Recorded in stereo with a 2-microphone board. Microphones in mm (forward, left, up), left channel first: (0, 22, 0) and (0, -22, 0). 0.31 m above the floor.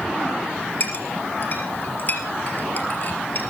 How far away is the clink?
About 3.5 m.